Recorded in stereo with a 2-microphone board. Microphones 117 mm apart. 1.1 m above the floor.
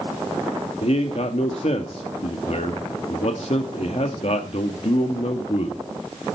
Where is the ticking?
No ticking in this recording.